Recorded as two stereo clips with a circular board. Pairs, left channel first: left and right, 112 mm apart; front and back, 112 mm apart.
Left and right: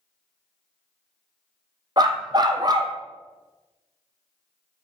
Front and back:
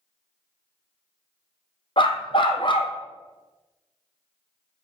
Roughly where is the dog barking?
Ahead right.